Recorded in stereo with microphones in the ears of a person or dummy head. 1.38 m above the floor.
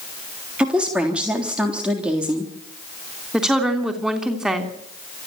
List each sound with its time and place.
0.6 s a woman speaking: 5° right (ahead or behind), 3.5 m
3.3 s a woman speaking: 5° right (ahead or behind), 3 m